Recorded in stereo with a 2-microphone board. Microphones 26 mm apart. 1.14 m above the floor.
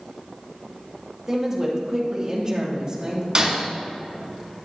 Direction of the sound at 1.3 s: 20° right (ahead or behind).